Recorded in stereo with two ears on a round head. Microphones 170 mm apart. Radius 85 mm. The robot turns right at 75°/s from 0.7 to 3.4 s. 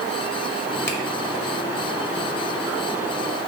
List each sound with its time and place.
0.9 s a finger snap: 15° left (ahead or behind), 1.3 m; by 1.0 s 5° left (ahead or behind), 1.3 m